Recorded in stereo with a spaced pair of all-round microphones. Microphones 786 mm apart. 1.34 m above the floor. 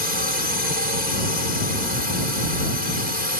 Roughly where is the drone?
Left.